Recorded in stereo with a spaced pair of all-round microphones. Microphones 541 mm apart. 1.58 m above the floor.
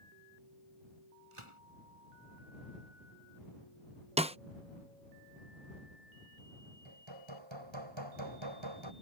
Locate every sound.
1.3 s a gunshot: 65° right (ahead or behind)
4.2 s a snare drum: 10° right (ahead or behind)
6.8 s hammering: 55° right (ahead or behind)